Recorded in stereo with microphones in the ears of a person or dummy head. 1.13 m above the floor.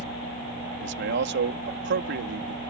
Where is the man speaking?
55° right (ahead or behind).